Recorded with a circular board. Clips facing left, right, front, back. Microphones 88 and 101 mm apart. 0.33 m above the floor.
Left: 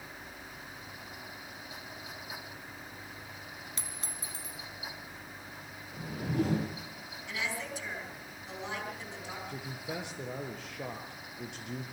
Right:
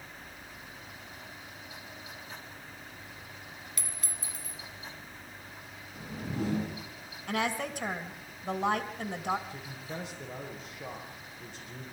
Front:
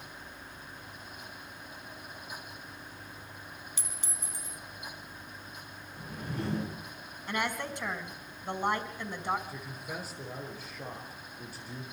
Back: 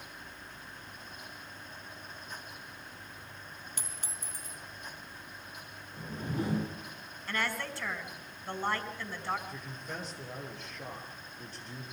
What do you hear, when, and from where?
3.8 s a clink: 150° left, 2 m
5.9 s a whoosh: 105° left, 9 m
7.3 s a woman speaking: 70° right, 2.5 m
9.5 s a man speaking: 80° left, 6 m